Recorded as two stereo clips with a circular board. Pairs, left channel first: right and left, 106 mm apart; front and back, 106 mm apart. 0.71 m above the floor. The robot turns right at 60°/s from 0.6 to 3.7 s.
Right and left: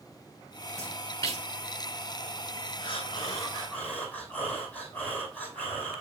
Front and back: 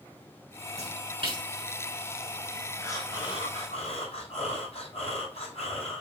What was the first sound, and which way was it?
A splash, 175° right.